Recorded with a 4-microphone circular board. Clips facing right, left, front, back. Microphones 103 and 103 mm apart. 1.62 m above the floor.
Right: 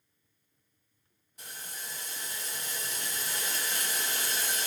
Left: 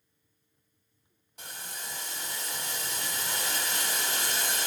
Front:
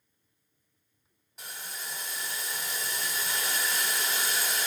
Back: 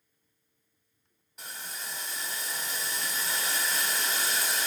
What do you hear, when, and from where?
1.4 s boiling: 90° left, 0.7 m